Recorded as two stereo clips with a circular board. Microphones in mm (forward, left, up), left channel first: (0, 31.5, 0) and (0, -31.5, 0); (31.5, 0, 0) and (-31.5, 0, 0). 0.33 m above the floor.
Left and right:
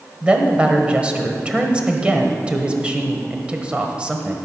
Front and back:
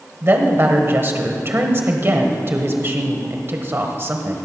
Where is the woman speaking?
155° right, 1.2 m.